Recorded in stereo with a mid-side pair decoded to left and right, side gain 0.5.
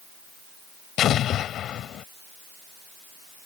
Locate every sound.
1.0 s an explosion: 60° left